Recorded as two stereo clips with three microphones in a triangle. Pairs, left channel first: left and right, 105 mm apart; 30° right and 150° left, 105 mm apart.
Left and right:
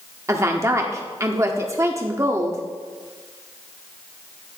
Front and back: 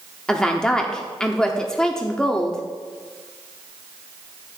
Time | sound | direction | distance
0.3 | a woman speaking | 105° right | 0.9 m